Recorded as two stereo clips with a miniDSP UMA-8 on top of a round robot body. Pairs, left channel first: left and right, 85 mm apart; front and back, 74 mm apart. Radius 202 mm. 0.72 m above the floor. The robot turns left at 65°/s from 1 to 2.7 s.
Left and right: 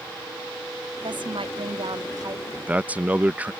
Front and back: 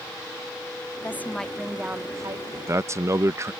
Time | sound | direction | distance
1.0 | a woman speaking | 55° right | ?
2.5 | a man speaking | 145° right | ?